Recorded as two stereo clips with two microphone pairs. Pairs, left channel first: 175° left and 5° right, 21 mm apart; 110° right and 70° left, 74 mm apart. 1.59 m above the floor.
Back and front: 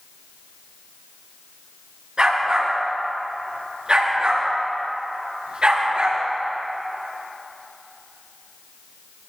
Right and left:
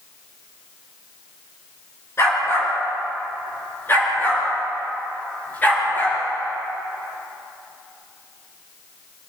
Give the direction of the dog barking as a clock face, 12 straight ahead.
2 o'clock.